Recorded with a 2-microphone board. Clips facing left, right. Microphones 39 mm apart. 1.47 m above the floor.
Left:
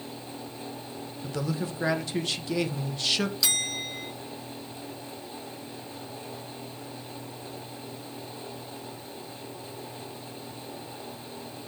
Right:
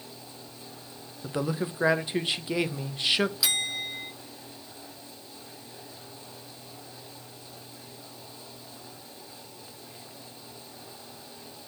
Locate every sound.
1.2 s a man speaking: 20° right (ahead or behind), 0.9 m
3.4 s a bell: 5° right (ahead or behind), 0.9 m